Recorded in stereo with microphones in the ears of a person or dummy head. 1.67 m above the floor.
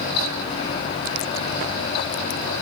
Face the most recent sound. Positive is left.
No sound to turn to.